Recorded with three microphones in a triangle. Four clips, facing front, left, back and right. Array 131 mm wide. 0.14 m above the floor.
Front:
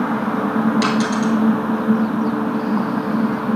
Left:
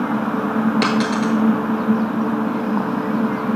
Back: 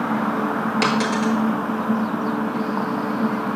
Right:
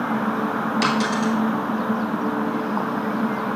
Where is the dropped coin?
110° left, 1.2 m.